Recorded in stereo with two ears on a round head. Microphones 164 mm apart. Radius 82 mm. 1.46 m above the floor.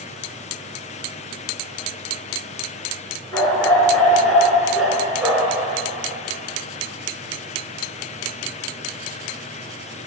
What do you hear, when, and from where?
3.3 s a dog barking: 15° left (ahead or behind), 4 m; by 5.6 s 15° right (ahead or behind), 4 m